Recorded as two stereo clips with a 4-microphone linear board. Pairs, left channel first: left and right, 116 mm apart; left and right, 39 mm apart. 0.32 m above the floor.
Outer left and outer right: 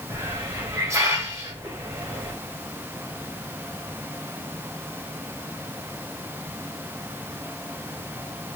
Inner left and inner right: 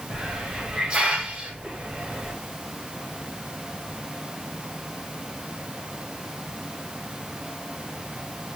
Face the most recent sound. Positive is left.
turn(degrees=-25)  # may be behind; listen again after turning